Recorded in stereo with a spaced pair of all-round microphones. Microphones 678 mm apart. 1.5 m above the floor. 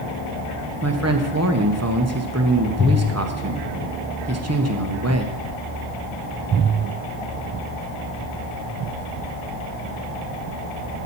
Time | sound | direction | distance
0.8 | a man speaking | 25° right (ahead or behind) | 1.0 m